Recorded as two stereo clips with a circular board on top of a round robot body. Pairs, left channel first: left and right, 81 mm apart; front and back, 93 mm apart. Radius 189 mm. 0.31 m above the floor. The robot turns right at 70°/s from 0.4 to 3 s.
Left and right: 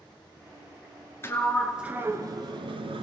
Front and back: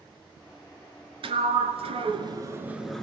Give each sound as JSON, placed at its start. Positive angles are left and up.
{"t": 1.2, "sound": "a sliding door", "azimuth_deg": 150, "distance_m": 1.1}